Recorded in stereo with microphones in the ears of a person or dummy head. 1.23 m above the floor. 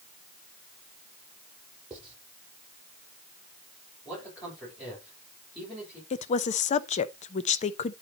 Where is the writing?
Centre (ahead or behind), 8.5 m.